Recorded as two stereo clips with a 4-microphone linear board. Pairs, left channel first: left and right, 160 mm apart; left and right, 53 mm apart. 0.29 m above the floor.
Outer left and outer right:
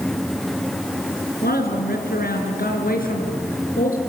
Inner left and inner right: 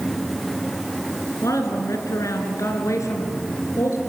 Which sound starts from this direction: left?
A woman speaking, at 1.4 s.